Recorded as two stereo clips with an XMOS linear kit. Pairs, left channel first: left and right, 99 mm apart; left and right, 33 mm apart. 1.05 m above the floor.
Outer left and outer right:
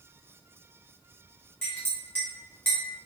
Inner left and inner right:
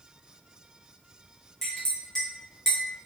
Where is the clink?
20° left (ahead or behind), 1.4 m.